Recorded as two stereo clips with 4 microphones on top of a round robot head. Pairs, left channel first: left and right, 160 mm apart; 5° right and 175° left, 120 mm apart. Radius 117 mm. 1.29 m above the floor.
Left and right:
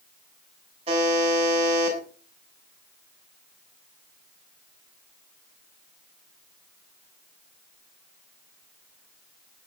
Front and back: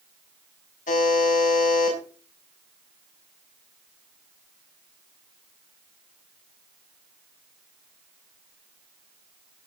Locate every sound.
0.9 s a buzzer: 30° right, 7 m